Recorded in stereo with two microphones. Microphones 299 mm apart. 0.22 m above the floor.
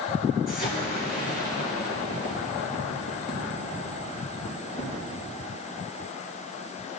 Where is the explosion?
30° left (ahead or behind), 4 m.